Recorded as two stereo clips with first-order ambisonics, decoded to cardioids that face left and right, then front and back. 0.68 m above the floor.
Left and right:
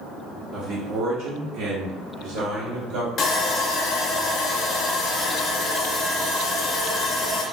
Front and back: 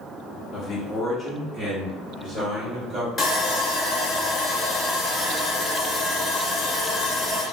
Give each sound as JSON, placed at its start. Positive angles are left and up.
{"t": 0.5, "sound": "a man speaking", "azimuth_deg": -45, "distance_m": 0.5}
{"t": 3.2, "sound": "sawing", "azimuth_deg": 55, "distance_m": 0.6}